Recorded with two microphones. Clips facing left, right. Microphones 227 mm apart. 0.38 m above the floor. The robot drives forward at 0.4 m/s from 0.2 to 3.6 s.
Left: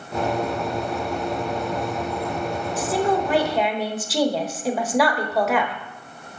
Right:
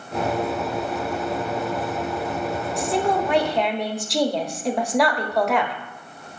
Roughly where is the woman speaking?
Centre.